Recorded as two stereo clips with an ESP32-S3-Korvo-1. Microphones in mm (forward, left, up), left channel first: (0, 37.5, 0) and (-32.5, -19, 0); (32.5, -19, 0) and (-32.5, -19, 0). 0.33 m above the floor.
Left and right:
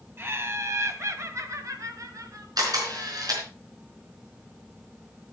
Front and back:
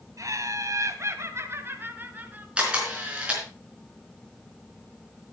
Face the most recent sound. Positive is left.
turn(degrees=-110)